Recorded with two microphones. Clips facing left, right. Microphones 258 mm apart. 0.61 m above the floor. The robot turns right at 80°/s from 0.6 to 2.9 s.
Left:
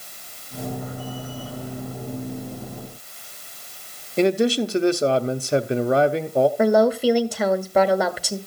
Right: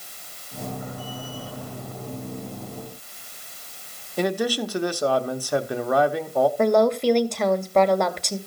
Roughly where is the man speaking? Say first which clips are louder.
Left 5 dB; left.